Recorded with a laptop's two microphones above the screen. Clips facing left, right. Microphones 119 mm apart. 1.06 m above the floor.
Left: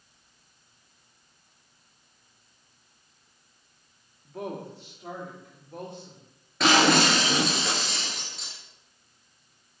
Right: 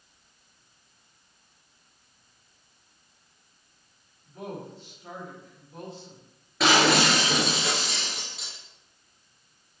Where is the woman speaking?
75° left (ahead or behind), 2.5 m; by 6.2 s 60° left (ahead or behind), 4 m.